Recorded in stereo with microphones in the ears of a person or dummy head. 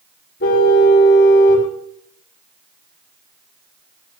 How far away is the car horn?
About 4 m.